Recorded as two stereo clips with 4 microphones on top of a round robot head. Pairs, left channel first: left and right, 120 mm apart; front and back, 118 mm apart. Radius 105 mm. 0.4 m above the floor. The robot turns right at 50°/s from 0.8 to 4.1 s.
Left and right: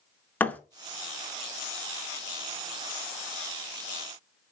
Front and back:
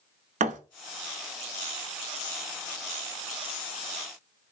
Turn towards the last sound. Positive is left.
turn(degrees=-30)